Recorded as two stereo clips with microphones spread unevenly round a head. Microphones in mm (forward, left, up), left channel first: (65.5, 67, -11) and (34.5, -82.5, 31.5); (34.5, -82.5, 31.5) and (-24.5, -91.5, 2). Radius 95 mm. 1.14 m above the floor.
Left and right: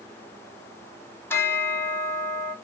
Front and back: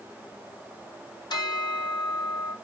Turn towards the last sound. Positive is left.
turn(degrees=10)